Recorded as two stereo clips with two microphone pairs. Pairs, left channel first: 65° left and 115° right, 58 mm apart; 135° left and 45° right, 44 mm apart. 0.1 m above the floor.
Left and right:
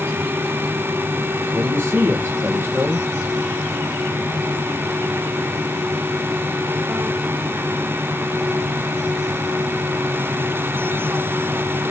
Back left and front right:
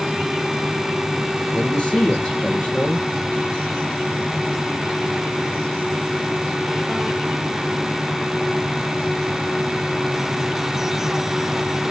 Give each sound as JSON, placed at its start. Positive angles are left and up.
{"t": 1.5, "sound": "a man speaking", "azimuth_deg": -160, "distance_m": 2.5}